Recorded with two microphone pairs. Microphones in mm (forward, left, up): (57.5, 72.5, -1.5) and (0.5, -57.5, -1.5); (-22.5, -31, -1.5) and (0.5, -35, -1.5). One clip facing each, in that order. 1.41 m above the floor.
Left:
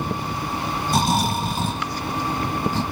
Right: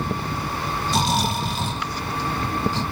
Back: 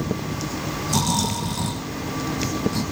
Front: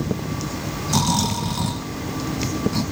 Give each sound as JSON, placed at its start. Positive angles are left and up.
{"t": 0.9, "sound": "snoring", "azimuth_deg": 60, "distance_m": 2.0}